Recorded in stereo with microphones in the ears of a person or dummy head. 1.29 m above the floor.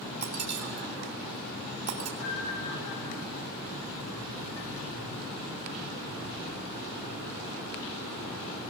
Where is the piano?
65° left (ahead or behind), 9.5 m.